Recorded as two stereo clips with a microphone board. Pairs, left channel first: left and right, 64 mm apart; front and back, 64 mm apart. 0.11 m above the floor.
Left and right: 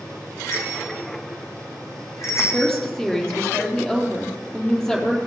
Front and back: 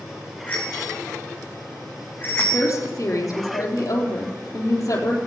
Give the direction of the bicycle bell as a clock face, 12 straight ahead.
10 o'clock.